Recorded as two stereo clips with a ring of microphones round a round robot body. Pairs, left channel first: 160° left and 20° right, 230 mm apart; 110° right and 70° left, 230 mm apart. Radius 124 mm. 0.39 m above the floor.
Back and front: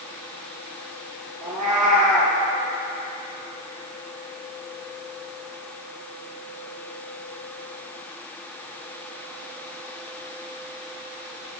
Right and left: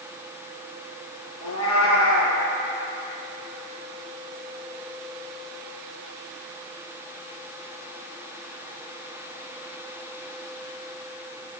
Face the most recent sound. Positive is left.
turn(degrees=-80)